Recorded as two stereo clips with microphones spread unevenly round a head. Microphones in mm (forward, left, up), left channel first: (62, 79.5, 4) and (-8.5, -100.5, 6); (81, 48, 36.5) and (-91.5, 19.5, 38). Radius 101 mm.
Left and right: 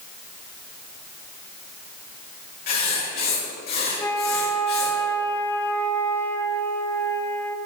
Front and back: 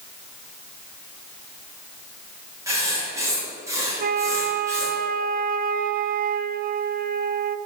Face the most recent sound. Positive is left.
turn(degrees=150)